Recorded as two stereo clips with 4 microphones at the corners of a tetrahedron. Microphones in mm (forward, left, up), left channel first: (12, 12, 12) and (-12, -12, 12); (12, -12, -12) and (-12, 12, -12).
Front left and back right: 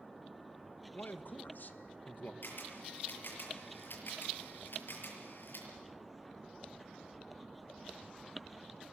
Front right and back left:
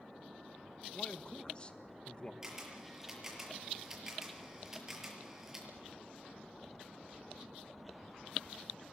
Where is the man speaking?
15° left, 1.8 m.